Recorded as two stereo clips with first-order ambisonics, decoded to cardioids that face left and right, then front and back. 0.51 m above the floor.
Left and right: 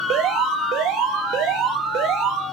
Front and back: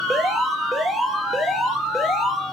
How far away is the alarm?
About 2.5 m.